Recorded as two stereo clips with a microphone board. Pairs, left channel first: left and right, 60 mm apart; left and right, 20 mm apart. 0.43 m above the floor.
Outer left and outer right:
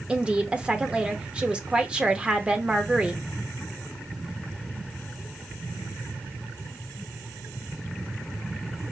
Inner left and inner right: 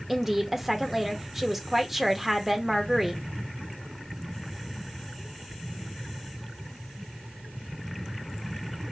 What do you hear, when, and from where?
0.1 s a woman speaking: 15° right (ahead or behind), 0.7 m